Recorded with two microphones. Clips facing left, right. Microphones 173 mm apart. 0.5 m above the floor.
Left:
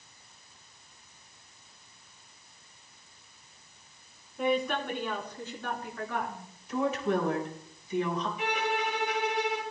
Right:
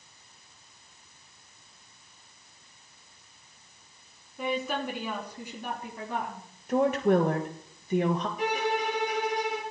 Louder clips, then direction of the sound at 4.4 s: Left 2 dB; centre (ahead or behind).